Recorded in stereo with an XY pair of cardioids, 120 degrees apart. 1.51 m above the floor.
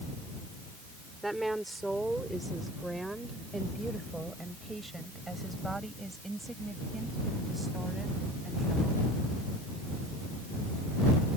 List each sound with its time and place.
1.2 s a woman speaking: 5° right; by 9.1 s 15° right